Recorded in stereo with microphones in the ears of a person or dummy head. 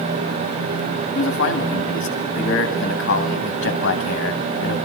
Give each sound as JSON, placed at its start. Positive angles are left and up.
{"t": 1.1, "sound": "a man speaking", "side_deg": 65, "distance_m": 2.0}